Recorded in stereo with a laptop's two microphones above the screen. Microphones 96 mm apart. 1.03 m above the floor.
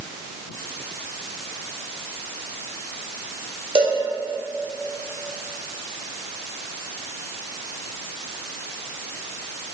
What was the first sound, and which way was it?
A cowbell, 75° right (ahead or behind).